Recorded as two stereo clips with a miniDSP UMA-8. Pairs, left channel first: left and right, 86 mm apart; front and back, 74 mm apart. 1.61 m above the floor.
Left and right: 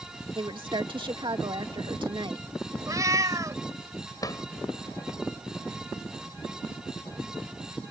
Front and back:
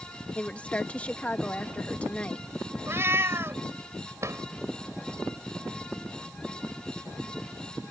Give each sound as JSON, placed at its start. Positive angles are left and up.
{"t": 0.3, "sound": "a woman speaking", "azimuth_deg": -70}
{"t": 2.9, "sound": "a cat meowing", "azimuth_deg": -130}
{"t": 4.2, "sound": "a drawer", "azimuth_deg": 135}